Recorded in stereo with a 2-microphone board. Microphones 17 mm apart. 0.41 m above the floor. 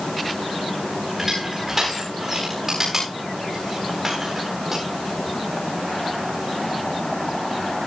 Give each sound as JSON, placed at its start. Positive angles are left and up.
{"t": 1.2, "sound": "crushing", "side_deg": -30, "distance_m": 10.0}